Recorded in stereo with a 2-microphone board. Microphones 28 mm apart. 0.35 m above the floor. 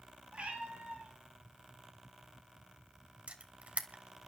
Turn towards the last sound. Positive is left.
turn(degrees=-50)  # may be behind; listen again after turning